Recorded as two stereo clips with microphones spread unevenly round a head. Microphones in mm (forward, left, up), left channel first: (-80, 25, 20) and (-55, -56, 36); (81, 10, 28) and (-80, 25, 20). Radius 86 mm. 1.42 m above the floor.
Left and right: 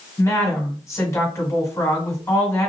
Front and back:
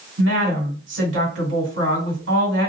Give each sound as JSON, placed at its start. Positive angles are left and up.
{"t": 0.2, "sound": "a woman speaking", "azimuth_deg": 165, "distance_m": 1.4}